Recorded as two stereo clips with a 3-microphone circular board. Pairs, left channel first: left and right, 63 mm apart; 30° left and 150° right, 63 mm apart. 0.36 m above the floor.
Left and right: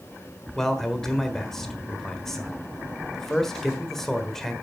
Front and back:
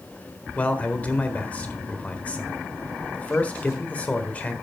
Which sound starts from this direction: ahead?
A man speaking, at 0.6 s.